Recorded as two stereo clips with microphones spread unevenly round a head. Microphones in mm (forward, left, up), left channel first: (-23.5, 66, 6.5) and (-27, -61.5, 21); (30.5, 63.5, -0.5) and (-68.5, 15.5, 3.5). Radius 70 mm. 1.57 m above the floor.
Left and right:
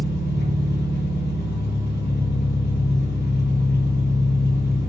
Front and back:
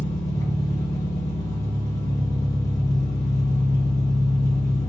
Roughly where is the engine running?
Left.